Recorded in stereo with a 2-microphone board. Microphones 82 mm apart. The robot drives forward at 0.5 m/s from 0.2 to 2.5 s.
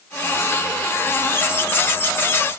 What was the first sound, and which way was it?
Only background noise.